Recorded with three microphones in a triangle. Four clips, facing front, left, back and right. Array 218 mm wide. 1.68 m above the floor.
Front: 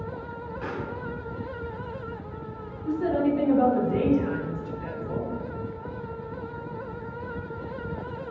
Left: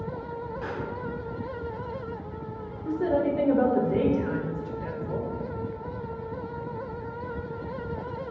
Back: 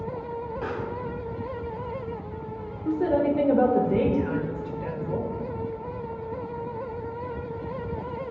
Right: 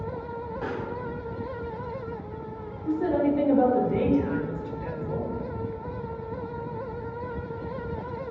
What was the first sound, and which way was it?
A pop, 110° right.